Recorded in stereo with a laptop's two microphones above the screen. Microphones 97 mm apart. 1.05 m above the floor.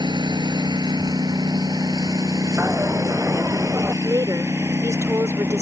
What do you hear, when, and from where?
0.0 s a lawn mower: 45° right (ahead or behind); by 5.6 s 25° right (ahead or behind)
2.6 s a dropped coin: 25° right (ahead or behind)
4.0 s a woman speaking: 30° right (ahead or behind)